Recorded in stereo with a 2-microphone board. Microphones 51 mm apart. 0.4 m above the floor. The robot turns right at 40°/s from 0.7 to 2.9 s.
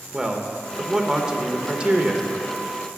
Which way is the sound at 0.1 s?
10° right (ahead or behind).